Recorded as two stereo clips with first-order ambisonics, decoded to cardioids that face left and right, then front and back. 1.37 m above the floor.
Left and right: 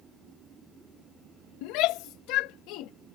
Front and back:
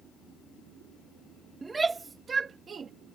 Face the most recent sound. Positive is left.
turn(degrees=115)